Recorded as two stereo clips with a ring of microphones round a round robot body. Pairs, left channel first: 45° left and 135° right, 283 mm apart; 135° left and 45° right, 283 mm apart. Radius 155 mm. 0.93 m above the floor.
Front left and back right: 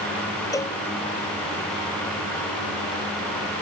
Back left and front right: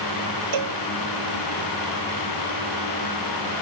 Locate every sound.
0.5 s a cowbell: 35° right